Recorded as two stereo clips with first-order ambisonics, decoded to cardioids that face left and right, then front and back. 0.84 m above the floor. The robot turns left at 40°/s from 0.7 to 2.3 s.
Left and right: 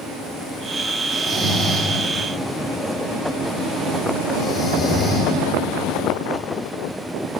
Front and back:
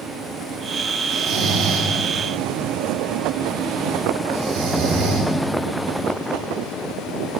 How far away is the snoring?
About 1.4 m.